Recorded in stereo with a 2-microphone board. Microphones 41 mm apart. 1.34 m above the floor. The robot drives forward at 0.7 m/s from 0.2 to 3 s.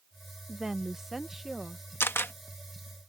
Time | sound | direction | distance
0.5 | a woman speaking | 15° right (ahead or behind) | ?
2.0 | a camera shutter | 70° left (ahead or behind) | ?